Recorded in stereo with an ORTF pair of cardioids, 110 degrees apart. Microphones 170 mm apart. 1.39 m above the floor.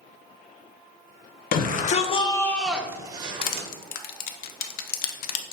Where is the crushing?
60° left, 0.5 m.